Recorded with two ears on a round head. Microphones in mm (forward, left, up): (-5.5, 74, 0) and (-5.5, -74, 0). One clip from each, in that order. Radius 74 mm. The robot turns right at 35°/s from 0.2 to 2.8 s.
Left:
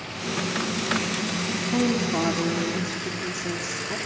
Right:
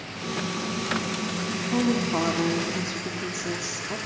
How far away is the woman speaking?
About 0.7 m.